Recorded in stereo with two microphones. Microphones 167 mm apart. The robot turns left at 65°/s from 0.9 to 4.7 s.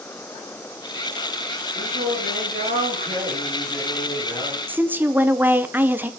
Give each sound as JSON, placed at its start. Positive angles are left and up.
{"t": 1.8, "sound": "singing", "azimuth_deg": -30, "distance_m": 4.5}
{"t": 4.7, "sound": "a woman speaking", "side_deg": -10, "distance_m": 0.7}